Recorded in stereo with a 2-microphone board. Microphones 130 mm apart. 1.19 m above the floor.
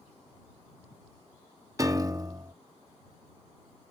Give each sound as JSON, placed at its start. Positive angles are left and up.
{"t": 1.8, "sound": "a piano", "side_deg": -25}